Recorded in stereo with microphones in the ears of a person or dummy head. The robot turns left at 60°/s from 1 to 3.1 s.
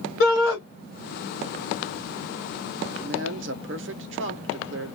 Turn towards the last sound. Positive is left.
turn(degrees=-60)  # may be behind; listen again after turning